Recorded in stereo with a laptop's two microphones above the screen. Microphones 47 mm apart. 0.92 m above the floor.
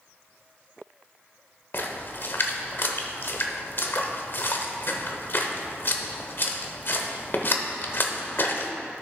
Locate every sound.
1.7 s a splash: 50° left (ahead or behind), 0.8 m